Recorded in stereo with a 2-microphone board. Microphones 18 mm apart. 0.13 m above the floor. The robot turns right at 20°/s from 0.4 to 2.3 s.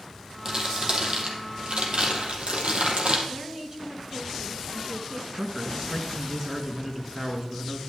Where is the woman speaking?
30° right (ahead or behind), 1.6 m.